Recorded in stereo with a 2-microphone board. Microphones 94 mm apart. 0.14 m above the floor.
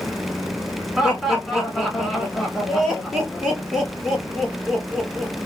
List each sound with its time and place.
1.0 s laughter: centre (ahead or behind), 1.3 m